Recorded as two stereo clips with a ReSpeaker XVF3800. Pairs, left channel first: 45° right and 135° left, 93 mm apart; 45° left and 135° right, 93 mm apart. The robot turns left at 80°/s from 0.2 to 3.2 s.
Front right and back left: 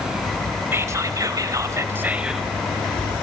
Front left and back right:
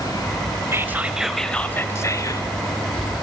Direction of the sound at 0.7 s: 175° right.